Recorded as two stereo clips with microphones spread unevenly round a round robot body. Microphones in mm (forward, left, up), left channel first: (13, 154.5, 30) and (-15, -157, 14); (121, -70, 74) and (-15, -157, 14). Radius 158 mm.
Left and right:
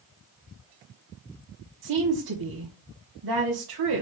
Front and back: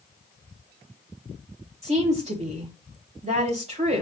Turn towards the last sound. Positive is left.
turn(degrees=-105)